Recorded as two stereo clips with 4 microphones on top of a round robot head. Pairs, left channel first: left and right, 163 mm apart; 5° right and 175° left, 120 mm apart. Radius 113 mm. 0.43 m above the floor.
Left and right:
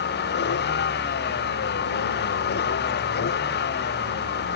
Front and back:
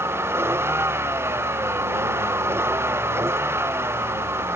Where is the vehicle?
105° left.